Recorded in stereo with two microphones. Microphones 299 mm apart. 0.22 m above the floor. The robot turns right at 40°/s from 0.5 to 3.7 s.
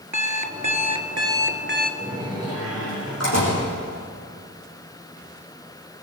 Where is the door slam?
5° left, 8.5 m; by 3.6 s 70° left, 8.5 m.